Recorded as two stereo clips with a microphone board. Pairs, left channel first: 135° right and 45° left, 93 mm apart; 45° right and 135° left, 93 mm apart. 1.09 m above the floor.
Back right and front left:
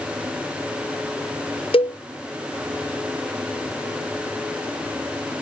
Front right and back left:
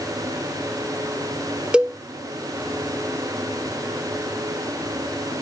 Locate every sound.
1.7 s a cowbell: 145° right